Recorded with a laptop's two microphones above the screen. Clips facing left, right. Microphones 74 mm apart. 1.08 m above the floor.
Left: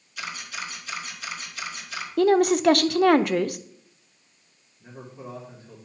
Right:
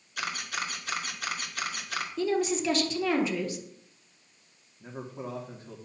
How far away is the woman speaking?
About 0.6 m.